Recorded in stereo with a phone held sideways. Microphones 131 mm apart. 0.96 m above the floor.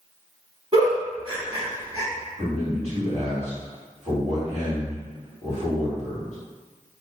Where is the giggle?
45° right (ahead or behind), 1.0 m.